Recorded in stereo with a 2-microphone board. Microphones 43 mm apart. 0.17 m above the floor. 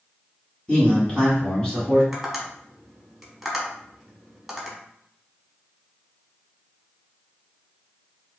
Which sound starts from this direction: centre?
Tapping, at 2.1 s.